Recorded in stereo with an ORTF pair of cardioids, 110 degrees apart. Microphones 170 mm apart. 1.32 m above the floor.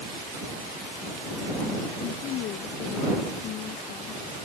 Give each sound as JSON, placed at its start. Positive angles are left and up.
{"t": 2.0, "sound": "a woman speaking", "azimuth_deg": 70}